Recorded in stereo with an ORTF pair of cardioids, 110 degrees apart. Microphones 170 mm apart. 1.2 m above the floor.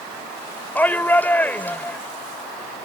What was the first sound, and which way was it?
A shout, 10° left.